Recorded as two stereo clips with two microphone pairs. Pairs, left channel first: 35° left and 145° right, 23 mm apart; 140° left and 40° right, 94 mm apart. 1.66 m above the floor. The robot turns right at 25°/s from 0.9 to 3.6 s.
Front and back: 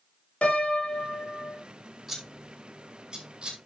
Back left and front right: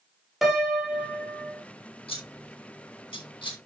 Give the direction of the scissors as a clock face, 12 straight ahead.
7 o'clock.